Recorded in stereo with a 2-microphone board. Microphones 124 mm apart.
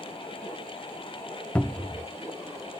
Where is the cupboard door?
10° left (ahead or behind), 0.5 m.